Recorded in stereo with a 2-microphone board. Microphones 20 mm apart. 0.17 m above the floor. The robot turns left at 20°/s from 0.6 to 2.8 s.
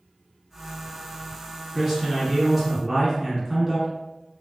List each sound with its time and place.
1.7 s a man speaking: 5° right (ahead or behind), 1.5 m; by 3.9 s 5° left (ahead or behind), 1.5 m